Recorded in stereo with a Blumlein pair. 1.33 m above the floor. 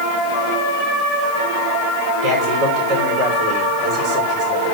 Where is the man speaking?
30° right, 5.5 m.